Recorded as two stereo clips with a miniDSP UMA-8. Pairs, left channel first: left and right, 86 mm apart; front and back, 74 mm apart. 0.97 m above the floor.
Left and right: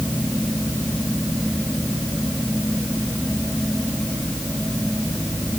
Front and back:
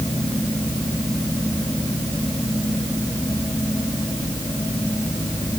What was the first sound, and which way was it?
Only background noise.